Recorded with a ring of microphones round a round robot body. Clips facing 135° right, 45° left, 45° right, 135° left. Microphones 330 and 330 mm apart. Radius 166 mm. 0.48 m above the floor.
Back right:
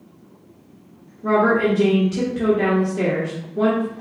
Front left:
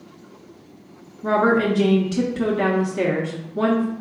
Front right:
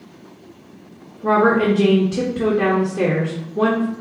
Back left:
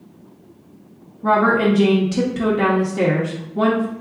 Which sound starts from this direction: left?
A woman speaking, at 1.2 s.